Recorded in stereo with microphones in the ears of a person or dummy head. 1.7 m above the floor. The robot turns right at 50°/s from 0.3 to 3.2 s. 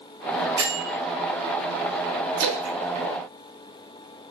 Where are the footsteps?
No footsteps in this recording.